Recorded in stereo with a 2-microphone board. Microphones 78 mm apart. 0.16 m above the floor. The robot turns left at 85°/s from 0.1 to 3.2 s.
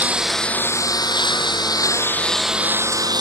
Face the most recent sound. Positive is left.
turn(degrees=-65)